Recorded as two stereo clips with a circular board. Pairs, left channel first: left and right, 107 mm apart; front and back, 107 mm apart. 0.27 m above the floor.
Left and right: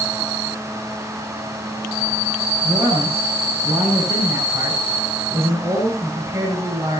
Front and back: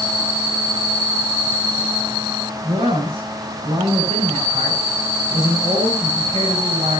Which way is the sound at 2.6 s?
155° right.